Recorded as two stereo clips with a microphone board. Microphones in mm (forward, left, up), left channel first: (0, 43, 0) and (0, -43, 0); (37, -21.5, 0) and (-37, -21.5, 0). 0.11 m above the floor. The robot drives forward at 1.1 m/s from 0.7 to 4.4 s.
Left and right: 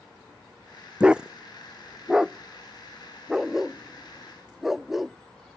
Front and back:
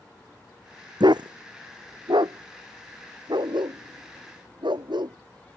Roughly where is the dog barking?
Behind.